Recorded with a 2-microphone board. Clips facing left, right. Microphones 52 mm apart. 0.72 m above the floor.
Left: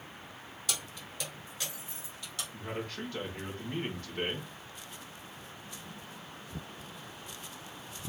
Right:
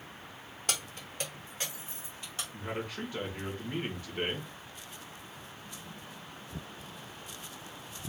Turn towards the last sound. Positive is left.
turn(degrees=-10)  # may be behind; listen again after turning